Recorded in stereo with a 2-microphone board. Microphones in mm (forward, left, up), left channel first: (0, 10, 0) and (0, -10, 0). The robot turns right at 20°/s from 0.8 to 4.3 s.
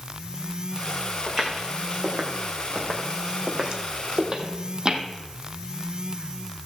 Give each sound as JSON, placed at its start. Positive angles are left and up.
{"t": 1.3, "sound": "footsteps", "side_deg": -30, "distance_m": 3.5}